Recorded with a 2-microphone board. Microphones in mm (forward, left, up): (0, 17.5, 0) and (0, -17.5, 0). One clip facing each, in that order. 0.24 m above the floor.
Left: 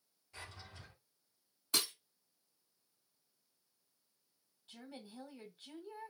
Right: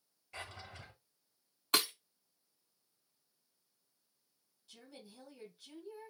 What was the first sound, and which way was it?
A drawer, 65° right (ahead or behind).